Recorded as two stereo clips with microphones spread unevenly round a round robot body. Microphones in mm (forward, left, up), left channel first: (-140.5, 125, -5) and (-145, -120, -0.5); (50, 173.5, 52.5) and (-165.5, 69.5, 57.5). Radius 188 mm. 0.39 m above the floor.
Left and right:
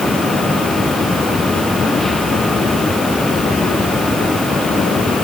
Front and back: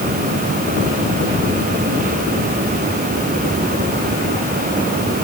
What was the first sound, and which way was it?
Only background noise.